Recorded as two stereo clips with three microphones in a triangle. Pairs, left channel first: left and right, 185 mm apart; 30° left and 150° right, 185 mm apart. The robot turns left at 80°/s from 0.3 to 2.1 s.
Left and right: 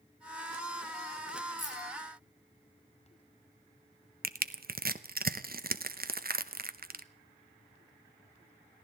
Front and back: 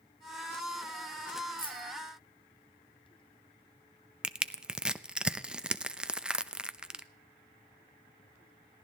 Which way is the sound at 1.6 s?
95° left.